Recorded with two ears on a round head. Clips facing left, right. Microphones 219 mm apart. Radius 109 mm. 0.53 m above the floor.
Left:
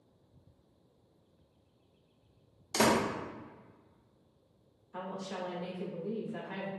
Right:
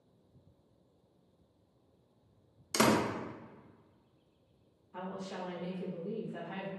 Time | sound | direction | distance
2.7 | a door slam | 15° right (ahead or behind) | 0.5 m
4.9 | a woman speaking | 30° left (ahead or behind) | 1.5 m